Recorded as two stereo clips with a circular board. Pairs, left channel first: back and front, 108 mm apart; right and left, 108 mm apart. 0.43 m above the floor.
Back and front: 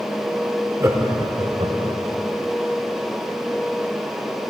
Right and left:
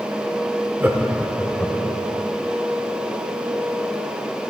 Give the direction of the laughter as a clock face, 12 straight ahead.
11 o'clock.